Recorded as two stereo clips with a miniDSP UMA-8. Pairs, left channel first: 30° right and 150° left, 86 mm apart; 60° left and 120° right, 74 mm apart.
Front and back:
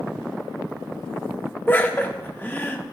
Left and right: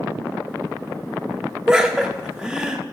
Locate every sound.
1.7 s laughter: 50° right, 0.9 m